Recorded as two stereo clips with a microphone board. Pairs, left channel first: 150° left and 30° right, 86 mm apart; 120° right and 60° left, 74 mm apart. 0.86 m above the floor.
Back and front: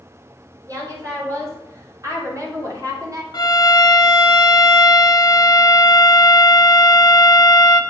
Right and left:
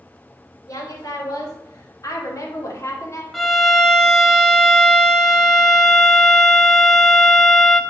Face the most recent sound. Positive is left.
turn(degrees=150)